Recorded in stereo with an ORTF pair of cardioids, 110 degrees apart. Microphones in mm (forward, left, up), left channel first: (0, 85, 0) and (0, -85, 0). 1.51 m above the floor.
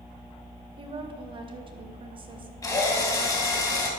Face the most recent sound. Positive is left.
turn(degrees=20)